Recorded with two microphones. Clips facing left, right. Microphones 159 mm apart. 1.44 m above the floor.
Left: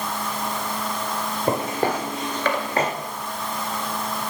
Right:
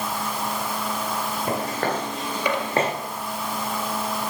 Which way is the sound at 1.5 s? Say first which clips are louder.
Left 4 dB; 25° left (ahead or behind).